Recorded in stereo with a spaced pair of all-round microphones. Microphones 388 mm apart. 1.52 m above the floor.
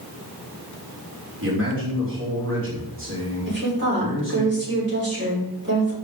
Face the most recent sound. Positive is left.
turn(degrees=-30)  # may be behind; listen again after turning